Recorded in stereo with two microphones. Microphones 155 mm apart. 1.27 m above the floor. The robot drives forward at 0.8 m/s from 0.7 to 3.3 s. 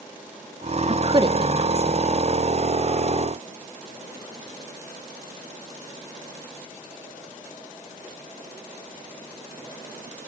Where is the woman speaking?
40° right (ahead or behind), 0.6 m; by 2.1 s 15° right (ahead or behind), 1.5 m.